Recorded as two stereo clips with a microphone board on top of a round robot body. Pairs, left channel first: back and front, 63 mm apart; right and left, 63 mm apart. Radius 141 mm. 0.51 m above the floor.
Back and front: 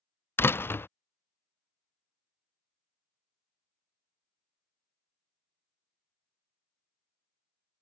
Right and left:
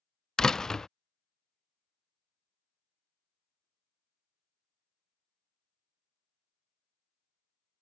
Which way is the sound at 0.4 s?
165° right.